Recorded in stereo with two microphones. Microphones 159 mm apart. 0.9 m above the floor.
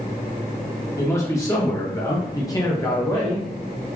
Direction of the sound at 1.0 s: 20° left (ahead or behind).